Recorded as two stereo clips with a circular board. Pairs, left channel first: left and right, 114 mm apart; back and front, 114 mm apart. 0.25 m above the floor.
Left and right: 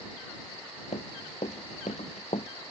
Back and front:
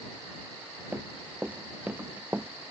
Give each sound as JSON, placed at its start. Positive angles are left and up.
{"t": 0.9, "sound": "running footsteps", "azimuth_deg": 80}